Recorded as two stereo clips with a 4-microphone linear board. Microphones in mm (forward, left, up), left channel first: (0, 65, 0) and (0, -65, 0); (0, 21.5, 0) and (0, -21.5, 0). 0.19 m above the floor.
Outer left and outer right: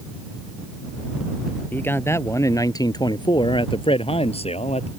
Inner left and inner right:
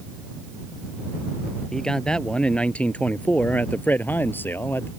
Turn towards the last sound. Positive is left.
turn(degrees=55)  # may be behind; listen again after turning